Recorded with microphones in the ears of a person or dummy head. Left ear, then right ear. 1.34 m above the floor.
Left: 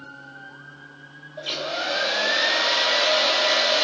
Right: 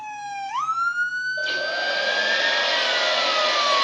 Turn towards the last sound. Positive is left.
turn(degrees=-10)  # may be behind; listen again after turning